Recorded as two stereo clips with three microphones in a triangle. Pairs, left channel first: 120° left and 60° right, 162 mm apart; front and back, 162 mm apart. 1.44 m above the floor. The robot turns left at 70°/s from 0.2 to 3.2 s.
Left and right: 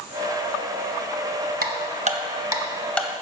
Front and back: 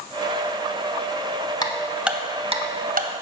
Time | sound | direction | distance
1.6 | ticking | 65° right | 0.7 m